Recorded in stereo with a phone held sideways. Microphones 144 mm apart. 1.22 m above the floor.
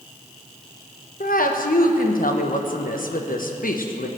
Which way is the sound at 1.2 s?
70° left (ahead or behind).